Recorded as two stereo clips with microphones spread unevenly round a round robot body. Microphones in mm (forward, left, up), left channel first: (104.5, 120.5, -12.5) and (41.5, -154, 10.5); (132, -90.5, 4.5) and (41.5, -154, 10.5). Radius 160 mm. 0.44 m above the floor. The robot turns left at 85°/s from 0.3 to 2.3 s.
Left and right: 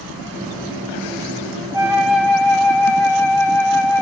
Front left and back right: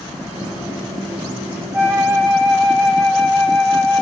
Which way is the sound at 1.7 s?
175° right.